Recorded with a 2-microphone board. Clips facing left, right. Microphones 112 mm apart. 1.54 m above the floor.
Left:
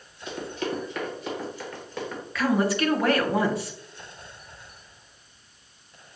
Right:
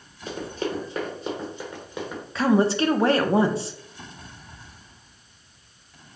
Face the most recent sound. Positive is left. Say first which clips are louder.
# right 4 dB
turn(degrees=-30)  # may be behind; listen again after turning